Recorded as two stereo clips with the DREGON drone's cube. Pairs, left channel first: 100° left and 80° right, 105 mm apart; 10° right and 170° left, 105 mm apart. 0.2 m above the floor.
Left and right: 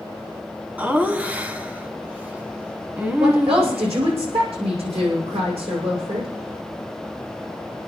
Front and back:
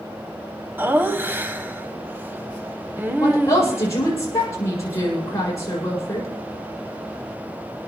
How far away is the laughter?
About 1.4 m.